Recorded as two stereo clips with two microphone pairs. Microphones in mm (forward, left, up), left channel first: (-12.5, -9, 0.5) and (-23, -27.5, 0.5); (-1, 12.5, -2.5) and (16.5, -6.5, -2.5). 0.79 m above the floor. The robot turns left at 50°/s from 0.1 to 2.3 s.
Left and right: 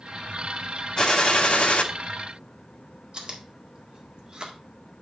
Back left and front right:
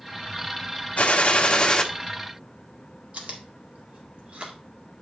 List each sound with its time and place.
1.0 s a gunshot: 115° left, 1.2 m; by 1.8 s 70° left, 1.2 m
3.1 s chewing: 80° right, 1.8 m